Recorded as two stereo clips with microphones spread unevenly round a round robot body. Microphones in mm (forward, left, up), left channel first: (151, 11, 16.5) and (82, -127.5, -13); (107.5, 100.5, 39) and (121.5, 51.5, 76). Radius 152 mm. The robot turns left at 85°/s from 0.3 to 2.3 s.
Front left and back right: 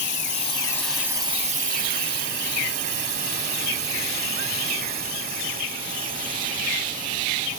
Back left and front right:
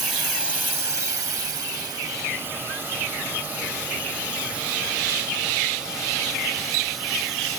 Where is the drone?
30° left; by 7.6 s 175° left.